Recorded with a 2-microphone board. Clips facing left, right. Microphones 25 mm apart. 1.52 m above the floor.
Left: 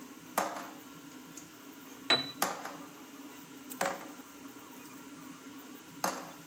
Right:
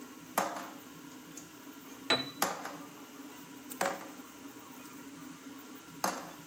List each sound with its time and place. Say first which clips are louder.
2.1 s a piano: left 2 dB; 10° left (ahead or behind), 1.3 m